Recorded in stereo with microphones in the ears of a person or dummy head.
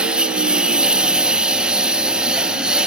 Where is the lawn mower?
5° right (ahead or behind).